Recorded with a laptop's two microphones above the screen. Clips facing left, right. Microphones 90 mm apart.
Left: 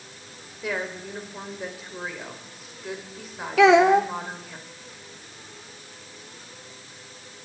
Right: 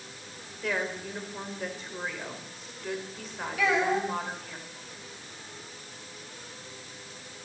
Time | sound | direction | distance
0.6 | a woman speaking | 5° left (ahead or behind) | 4 m
3.6 | a child speaking | 85° left | 1.0 m